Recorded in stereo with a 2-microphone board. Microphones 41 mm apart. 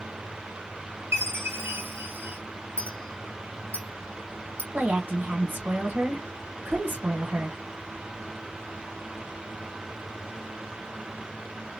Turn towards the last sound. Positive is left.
turn(degrees=-45)  # may be behind; listen again after turning